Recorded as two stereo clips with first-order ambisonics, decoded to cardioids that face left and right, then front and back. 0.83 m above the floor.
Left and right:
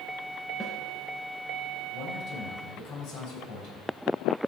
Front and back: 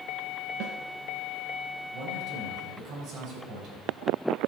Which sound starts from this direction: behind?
A snare drum, at 0.6 s.